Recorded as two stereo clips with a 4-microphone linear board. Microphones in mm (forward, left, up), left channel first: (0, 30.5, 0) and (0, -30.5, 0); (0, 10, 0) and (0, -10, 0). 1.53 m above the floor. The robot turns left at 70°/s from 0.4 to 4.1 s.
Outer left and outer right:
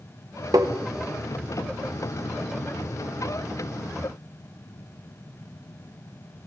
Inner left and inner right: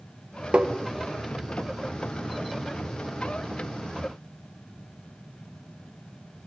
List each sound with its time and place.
0.5 s tapping: 80° right, 1.7 m